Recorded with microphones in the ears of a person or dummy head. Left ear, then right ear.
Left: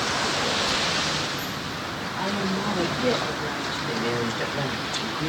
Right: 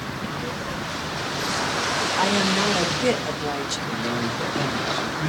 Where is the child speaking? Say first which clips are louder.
Left 6 dB; 65° left (ahead or behind), 5.5 m; by 2.1 s 50° left (ahead or behind), 5.5 m.